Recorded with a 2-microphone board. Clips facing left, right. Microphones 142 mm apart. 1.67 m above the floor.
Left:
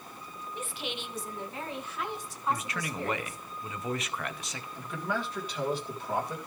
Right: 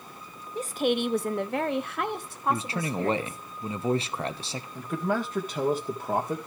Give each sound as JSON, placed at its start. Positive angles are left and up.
{"t": 0.6, "sound": "a woman speaking", "side_deg": -35, "distance_m": 0.7}
{"t": 2.5, "sound": "a man speaking", "side_deg": -30, "distance_m": 0.8}
{"t": 4.8, "sound": "a man speaking", "side_deg": -50, "distance_m": 1.9}